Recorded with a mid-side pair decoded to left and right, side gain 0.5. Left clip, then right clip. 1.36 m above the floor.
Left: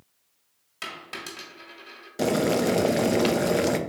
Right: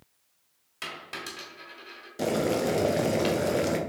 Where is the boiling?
30° left, 0.6 m.